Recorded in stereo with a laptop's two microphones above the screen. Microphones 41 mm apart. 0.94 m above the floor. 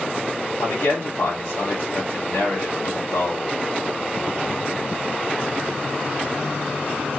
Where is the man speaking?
80° left, 2 m.